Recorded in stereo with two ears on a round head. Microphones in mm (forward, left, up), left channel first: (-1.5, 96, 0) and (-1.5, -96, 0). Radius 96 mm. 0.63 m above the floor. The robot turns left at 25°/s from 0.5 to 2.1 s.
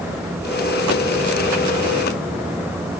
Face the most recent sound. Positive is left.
No sound to turn to.